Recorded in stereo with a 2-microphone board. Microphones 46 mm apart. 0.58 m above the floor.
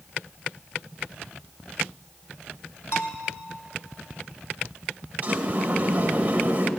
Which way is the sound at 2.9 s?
65° left (ahead or behind).